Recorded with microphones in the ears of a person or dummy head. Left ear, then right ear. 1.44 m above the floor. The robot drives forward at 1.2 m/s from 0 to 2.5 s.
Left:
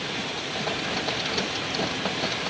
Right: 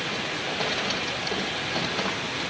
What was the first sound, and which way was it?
Only background noise.